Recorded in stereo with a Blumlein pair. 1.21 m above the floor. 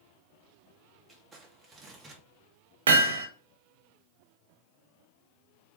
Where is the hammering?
60° right, 1.5 m.